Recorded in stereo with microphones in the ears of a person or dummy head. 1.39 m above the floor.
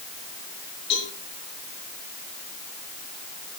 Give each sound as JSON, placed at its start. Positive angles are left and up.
{"t": 0.9, "sound": "a cowbell", "side_deg": 35, "distance_m": 7.0}